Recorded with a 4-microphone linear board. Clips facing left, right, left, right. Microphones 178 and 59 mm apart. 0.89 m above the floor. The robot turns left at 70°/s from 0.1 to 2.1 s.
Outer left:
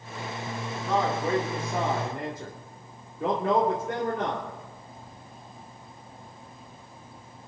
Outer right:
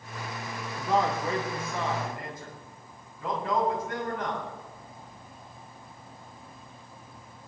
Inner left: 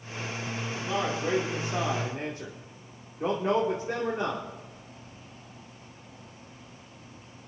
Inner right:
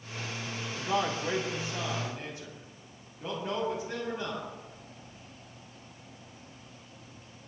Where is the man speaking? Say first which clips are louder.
Even, even; 165° right, 2.5 m; by 4.5 s 100° left, 2.5 m.